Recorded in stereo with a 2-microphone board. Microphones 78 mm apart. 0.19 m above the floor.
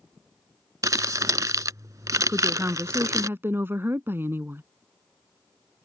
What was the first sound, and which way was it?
Crumpling, 50° right (ahead or behind).